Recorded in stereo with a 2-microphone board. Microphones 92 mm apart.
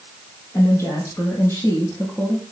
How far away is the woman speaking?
About 4.5 m.